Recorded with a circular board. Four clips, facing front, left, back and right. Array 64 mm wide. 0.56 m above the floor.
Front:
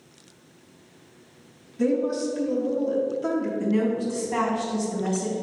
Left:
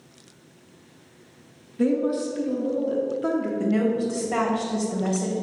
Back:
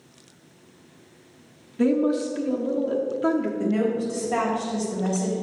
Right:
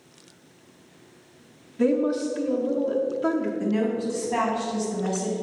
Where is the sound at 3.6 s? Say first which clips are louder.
Left 2 dB, even; 120° left, 2.5 m.